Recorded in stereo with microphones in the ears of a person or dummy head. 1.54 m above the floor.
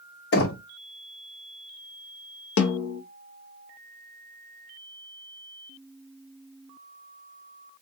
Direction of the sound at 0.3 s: 60° left (ahead or behind).